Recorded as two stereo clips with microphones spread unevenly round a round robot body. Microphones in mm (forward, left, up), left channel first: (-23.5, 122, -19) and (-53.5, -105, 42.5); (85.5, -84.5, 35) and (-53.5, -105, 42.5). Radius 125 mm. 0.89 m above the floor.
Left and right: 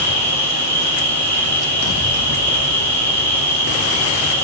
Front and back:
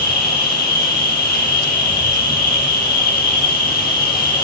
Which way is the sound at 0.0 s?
Straight ahead.